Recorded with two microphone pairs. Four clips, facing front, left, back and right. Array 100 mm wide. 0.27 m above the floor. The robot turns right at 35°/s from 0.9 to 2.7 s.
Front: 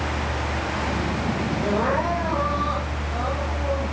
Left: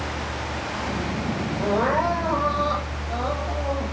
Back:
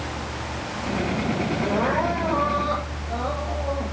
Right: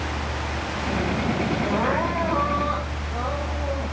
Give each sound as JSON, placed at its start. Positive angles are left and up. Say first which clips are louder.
{"t": 1.6, "sound": "crying", "louder": "left 5 dB, front 1 dB", "azimuth_deg": 75, "distance_m": 9.0}